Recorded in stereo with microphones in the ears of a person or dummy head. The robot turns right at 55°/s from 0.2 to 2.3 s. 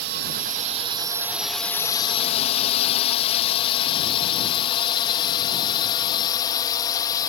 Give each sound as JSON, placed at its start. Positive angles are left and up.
{"t": 0.0, "sound": "a drone", "side_deg": -55}